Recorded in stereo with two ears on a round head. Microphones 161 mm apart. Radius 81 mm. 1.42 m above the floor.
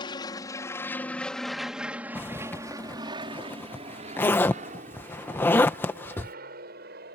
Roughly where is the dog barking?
No dog barking in this recording.